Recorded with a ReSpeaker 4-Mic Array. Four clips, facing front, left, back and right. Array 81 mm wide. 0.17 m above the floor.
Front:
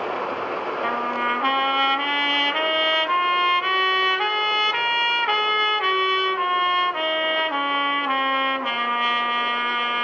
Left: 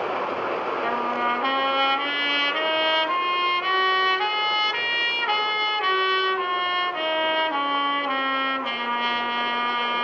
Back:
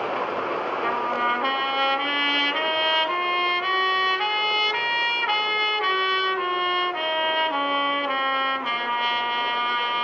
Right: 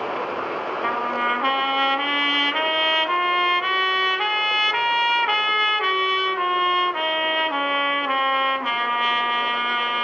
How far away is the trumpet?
About 0.6 m.